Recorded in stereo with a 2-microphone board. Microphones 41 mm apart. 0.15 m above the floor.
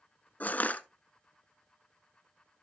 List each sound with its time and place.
0.4 s crushing: 40° left (ahead or behind), 0.9 m